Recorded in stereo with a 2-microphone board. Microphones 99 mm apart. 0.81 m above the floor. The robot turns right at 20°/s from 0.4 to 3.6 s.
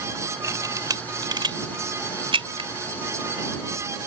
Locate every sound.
0.4 s a camera shutter: 35° right (ahead or behind); by 2.7 s 75° right (ahead or behind)